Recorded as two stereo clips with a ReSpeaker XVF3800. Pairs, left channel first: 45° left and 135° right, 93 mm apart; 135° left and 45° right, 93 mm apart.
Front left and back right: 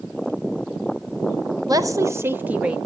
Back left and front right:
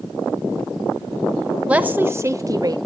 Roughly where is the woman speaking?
Behind right.